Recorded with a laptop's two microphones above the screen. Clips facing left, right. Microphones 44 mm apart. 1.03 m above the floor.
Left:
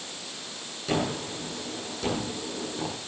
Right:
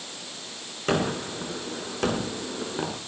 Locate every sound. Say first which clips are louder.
0.9 s a gunshot: right 3 dB; 55° right (ahead or behind), 8 m